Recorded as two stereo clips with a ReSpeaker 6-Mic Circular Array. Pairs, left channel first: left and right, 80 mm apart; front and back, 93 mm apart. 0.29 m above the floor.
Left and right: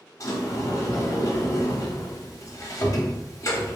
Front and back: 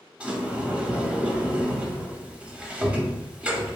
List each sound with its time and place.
0.2 s a sliding door: 110° left, 0.6 m